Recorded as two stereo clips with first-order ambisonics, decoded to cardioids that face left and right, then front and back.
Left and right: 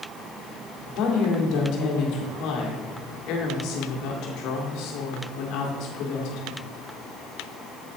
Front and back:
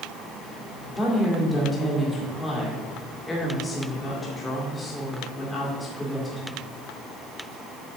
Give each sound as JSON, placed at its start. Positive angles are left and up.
{"t": 0.9, "sound": "a woman speaking", "azimuth_deg": 75, "distance_m": 2.0}